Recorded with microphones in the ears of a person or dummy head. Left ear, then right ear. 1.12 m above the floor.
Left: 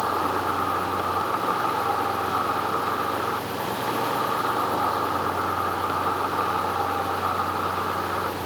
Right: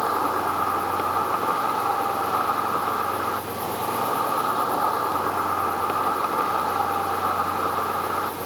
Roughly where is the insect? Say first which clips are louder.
Right 1 dB; right.